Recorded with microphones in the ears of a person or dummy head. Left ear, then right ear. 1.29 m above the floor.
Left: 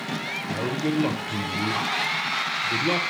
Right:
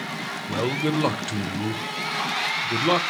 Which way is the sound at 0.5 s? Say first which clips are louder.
Right 4 dB; 35° right (ahead or behind).